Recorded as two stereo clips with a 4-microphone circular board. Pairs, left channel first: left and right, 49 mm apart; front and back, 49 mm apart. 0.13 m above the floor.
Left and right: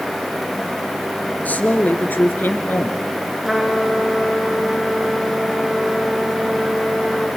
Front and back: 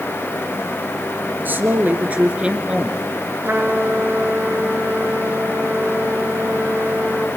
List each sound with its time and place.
1.4 s a woman speaking: 140° left, 1.9 m; by 3.0 s 100° left, 1.6 m
3.4 s a trumpet: 170° right, 2.5 m